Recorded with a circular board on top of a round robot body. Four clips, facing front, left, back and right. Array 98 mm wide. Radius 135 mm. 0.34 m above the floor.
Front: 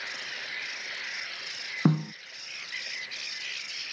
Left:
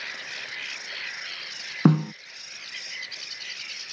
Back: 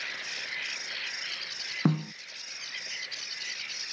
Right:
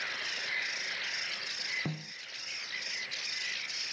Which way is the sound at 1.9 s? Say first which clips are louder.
Left 24 dB, front 2 dB; 80° left.